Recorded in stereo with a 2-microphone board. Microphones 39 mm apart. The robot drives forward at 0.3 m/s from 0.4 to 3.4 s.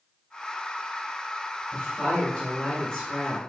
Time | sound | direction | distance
1.7 | a woman speaking | 20° left (ahead or behind) | 2 m